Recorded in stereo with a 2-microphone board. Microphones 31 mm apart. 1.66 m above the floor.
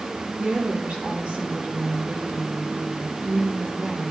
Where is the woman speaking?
50° right (ahead or behind), 5.5 m.